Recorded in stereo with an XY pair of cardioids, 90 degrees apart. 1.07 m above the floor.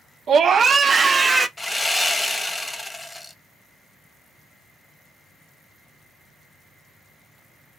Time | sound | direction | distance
0.3 | a scream | 65° right | 0.5 m
1.6 | sawing | 15° left | 0.9 m